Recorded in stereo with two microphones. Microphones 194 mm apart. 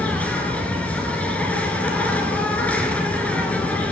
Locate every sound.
0.0 s an insect: 5° left (ahead or behind), 1.5 m